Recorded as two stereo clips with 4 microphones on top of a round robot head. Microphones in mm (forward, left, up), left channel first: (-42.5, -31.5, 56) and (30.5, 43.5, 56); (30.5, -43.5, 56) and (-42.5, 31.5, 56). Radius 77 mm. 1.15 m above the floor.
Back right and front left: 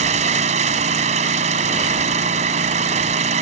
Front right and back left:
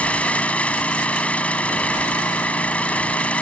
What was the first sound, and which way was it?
An engine running, 35° left.